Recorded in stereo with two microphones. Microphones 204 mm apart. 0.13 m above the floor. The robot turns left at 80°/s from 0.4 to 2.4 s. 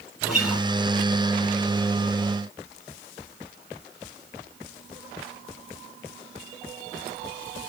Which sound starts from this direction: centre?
A guitar, at 0.2 s.